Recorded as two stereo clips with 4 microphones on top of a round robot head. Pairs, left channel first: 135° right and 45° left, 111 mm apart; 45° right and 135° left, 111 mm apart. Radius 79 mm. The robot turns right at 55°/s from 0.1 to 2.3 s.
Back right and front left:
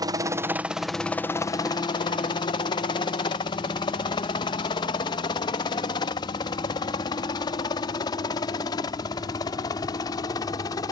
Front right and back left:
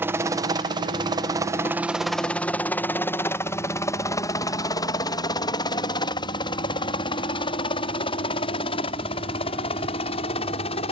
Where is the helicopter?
75° left; by 10.9 s 80° right.